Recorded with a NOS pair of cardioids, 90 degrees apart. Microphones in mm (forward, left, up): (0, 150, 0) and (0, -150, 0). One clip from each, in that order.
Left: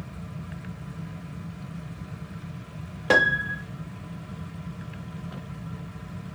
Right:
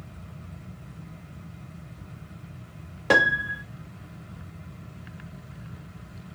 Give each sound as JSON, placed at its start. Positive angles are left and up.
{"t": 0.0, "sound": "a fan", "azimuth_deg": 30, "distance_m": 1.2}
{"t": 3.1, "sound": "a piano", "azimuth_deg": 0, "distance_m": 1.0}